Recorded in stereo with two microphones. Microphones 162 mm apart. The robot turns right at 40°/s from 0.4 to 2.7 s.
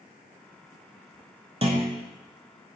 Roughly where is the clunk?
Right.